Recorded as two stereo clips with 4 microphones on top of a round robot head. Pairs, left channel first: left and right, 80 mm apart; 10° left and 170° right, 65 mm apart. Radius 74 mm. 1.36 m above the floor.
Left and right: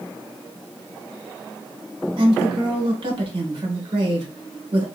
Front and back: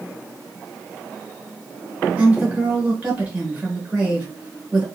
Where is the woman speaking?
100° right, 1.2 m.